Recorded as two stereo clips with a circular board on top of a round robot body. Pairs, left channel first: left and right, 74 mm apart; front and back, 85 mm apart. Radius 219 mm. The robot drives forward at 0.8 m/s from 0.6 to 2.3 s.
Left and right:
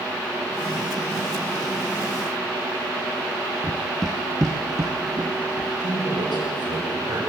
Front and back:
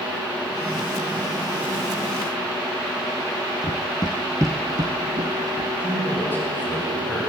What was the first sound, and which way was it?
Running footsteps, 30° left.